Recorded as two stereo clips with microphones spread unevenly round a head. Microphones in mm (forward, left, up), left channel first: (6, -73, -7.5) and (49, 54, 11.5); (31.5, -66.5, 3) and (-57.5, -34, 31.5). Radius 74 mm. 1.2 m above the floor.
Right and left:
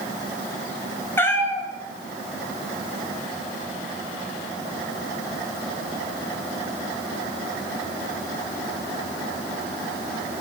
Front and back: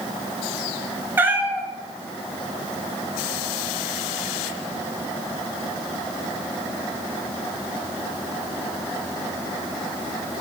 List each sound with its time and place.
1.2 s a cat meowing: 175° left, 1.4 m